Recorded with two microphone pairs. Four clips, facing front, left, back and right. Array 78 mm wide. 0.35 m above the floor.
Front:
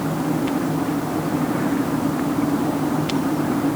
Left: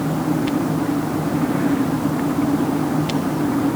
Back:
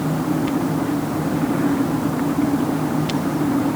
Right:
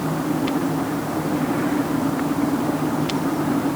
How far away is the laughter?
No laughter in this recording.